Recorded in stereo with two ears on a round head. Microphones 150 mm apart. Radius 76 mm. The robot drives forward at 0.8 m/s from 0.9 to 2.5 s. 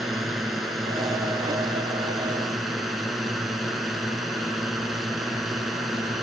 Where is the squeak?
No squeak in this recording.